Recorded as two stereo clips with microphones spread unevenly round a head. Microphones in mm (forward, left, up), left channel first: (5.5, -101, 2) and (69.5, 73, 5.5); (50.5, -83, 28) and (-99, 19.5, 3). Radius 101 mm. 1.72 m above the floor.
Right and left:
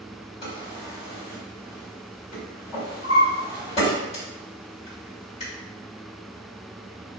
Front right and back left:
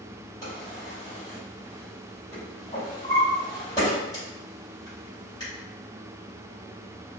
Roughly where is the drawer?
Right.